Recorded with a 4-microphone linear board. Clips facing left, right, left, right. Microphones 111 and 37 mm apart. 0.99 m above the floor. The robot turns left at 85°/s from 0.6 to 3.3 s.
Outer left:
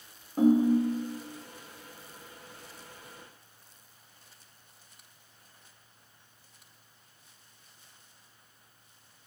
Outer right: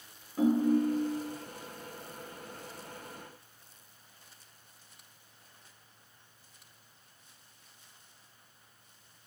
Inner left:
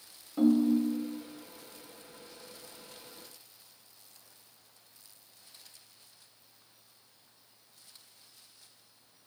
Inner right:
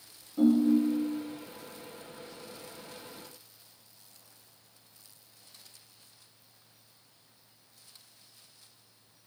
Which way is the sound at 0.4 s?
135° left.